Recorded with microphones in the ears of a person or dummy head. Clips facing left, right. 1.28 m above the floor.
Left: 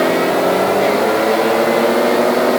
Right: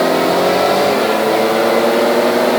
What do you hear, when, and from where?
Only background noise.